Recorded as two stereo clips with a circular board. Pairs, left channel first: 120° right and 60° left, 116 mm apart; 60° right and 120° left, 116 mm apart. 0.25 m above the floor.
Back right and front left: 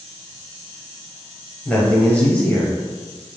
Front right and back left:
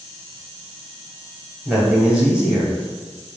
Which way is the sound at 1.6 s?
170° right.